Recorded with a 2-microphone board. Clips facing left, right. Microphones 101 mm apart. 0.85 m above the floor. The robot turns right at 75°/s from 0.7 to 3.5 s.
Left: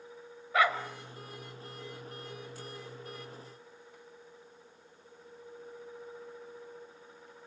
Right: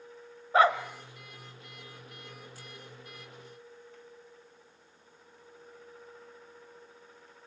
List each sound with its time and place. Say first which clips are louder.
0.5 s a dog barking: right 5 dB; 35° right (ahead or behind), 1.7 m; by 0.8 s 30° right (ahead or behind), 1.7 m